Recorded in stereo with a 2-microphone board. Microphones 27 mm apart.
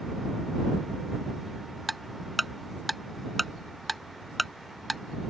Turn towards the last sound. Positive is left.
turn(degrees=5)  # may be behind; listen again after turning